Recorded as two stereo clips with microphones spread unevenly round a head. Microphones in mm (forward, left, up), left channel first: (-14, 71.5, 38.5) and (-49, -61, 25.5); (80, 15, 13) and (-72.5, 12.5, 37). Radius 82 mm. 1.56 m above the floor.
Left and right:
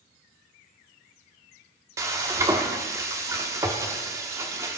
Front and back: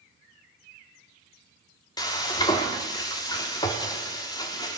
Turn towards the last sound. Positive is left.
turn(degrees=-50)